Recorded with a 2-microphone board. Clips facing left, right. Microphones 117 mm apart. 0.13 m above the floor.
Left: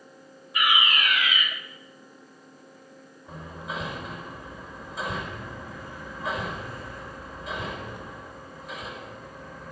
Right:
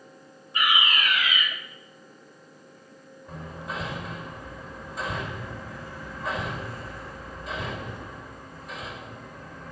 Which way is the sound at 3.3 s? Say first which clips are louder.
Even; centre (ahead or behind).